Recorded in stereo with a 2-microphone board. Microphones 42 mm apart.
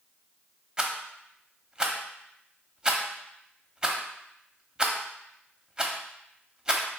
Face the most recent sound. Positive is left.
turn(degrees=-20)  # may be behind; listen again after turning